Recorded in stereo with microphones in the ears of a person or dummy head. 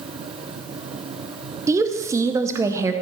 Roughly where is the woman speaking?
Centre.